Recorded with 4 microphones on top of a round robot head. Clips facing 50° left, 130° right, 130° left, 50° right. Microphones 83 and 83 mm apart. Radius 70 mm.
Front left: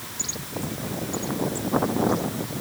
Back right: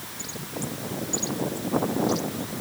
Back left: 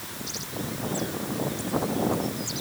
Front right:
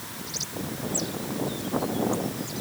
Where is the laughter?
No laughter in this recording.